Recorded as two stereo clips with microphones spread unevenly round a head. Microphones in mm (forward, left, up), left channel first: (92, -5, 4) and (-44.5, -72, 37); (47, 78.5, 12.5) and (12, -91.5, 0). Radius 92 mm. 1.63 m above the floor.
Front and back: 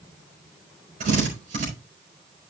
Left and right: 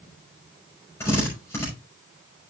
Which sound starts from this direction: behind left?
A drill, at 1.0 s.